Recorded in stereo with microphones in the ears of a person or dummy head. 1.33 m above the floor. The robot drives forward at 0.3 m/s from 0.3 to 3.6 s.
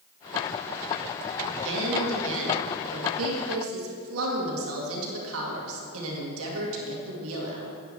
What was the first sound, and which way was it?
A woman speaking, 65° right (ahead or behind).